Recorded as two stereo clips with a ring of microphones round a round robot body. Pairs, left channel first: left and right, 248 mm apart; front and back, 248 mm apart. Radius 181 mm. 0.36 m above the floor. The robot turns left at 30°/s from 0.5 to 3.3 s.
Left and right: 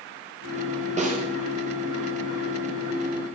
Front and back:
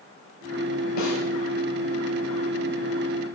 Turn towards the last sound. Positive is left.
turn(degrees=-95)